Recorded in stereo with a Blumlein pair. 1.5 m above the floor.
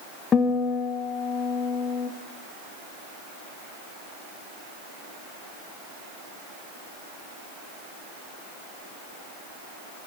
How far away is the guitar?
About 2.5 m.